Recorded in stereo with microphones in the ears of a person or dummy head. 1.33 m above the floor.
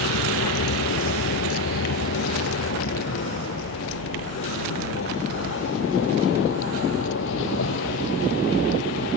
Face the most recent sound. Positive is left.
turn(degrees=70)  # may be behind; listen again after turning